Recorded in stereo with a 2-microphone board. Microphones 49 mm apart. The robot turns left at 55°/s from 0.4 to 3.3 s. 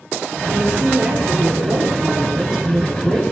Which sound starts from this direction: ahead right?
A woman speaking, at 0.5 s.